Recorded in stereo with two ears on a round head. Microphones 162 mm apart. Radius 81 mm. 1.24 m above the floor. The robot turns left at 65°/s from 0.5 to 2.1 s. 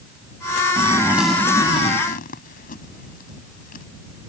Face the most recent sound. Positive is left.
turn(degrees=55)  # may be behind; listen again after turning